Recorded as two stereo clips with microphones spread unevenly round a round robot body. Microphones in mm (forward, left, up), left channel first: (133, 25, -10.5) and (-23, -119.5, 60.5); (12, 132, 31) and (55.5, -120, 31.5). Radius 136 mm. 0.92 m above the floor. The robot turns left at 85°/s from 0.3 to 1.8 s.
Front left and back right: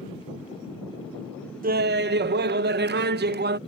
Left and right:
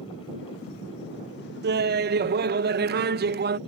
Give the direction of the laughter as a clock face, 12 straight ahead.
3 o'clock.